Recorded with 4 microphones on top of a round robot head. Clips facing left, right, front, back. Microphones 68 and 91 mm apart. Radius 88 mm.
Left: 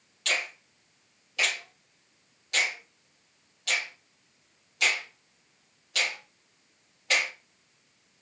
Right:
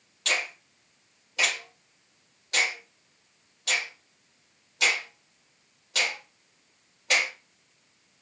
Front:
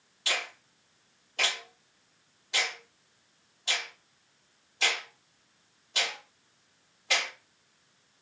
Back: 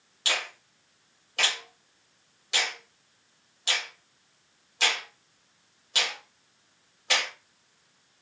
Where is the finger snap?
155° right, 2.5 m.